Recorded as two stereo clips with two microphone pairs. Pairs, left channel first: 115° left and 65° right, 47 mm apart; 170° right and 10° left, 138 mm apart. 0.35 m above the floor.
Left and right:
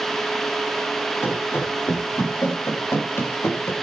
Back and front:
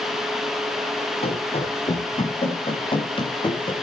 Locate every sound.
1.2 s running footsteps: 145° left, 7 m; by 3.7 s 135° left, 4 m